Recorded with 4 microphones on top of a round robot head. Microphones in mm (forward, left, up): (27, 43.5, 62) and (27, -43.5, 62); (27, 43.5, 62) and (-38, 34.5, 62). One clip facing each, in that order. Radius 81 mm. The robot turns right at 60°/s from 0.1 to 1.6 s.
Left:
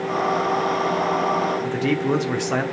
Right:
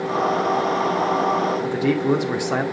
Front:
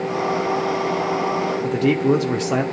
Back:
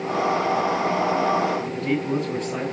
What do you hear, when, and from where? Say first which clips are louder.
1.6 s a man speaking: right 2 dB, front 7 dB; 10° right, 2.5 m